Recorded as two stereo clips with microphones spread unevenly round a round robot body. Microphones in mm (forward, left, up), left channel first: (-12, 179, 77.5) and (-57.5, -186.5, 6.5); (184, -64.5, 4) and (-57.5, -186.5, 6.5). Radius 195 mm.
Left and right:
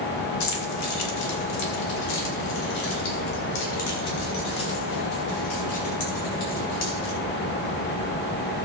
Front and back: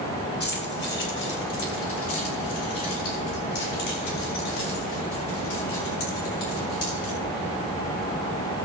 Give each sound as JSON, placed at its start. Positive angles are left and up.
{"t": 0.4, "sound": "keys jangling", "azimuth_deg": 90, "distance_m": 2.5}